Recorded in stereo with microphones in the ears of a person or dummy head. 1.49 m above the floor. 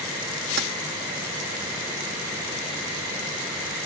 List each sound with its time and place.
0.6 s keys jangling: 60° right (ahead or behind)